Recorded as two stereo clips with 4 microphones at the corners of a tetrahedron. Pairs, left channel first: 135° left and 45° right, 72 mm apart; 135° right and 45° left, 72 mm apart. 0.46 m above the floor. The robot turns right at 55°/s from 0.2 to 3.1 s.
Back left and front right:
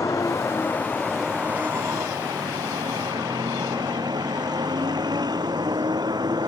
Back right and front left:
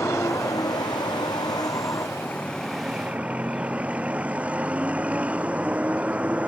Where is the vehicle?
175° left; by 6.5 s 30° right.